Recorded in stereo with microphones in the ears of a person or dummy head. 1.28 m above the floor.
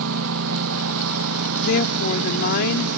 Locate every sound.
0.0 s a lawn mower: 75° right (ahead or behind)
1.6 s a woman speaking: 50° left (ahead or behind)